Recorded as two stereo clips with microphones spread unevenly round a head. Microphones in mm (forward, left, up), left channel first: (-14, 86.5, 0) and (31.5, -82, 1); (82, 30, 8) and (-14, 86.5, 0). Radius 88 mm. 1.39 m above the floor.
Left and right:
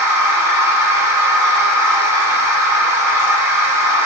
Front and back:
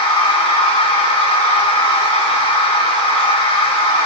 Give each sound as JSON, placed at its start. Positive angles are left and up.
{"t": 0.0, "sound": "a machine running", "azimuth_deg": 0, "distance_m": 0.8}